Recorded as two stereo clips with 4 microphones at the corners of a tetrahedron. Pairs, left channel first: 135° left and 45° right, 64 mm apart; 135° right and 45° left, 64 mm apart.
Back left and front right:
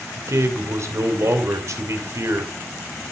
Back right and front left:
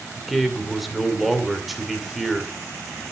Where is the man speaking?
45° right, 2.5 m.